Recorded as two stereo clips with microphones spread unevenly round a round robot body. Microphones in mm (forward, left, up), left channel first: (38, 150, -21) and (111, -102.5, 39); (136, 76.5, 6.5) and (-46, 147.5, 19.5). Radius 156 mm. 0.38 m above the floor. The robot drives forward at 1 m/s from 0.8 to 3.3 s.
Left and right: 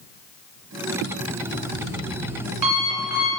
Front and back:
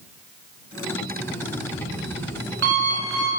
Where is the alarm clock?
85° right, 1.0 m; by 3.3 s 155° right, 2.5 m.